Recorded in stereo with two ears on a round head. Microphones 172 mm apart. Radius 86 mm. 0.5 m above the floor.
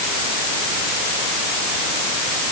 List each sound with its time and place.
Only background noise.